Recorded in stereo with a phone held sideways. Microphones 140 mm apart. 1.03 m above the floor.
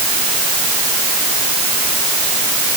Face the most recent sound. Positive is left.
No sound to turn to.